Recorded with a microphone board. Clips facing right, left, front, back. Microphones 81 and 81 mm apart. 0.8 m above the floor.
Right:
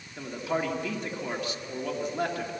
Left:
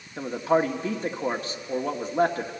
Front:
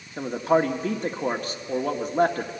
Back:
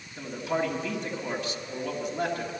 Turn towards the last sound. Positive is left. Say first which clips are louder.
# left 7 dB, front 8 dB
turn(degrees=40)